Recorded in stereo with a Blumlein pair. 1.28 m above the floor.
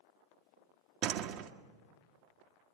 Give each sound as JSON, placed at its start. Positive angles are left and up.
{"t": 1.0, "sound": "a door slam", "azimuth_deg": -40, "distance_m": 1.4}